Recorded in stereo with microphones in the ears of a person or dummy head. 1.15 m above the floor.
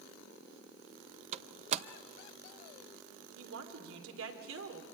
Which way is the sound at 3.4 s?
80° right.